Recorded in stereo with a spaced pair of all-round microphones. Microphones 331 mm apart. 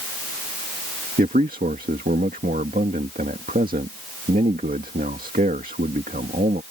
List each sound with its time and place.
1.2 s a man speaking: 25° right (ahead or behind)